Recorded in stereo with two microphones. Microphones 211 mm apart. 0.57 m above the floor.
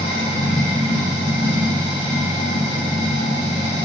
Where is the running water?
25° left (ahead or behind), 1.7 m.